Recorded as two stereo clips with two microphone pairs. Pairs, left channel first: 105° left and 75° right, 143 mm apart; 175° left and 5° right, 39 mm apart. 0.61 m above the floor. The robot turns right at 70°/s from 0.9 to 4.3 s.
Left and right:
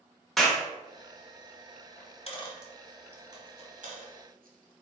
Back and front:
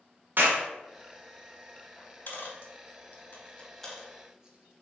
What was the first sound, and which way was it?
A clap, 20° left.